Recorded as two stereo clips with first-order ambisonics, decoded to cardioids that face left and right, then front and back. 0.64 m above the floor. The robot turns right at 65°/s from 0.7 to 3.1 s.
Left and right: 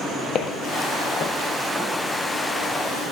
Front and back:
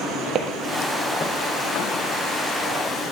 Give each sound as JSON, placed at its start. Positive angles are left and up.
{"t": 0.3, "sound": "footsteps", "azimuth_deg": 135, "distance_m": 0.9}